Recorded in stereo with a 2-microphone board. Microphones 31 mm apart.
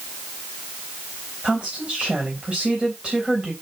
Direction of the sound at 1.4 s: 35° right (ahead or behind).